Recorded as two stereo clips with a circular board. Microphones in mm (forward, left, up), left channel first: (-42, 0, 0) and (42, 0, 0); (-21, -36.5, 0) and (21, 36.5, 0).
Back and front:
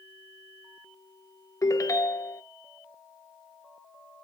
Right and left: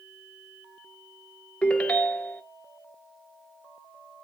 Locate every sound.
1.6 s a ringtone: 175° left, 0.6 m